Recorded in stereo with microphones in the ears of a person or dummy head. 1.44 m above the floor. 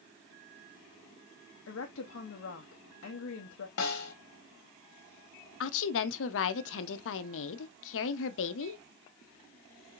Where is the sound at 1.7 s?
70° left (ahead or behind), 0.6 m.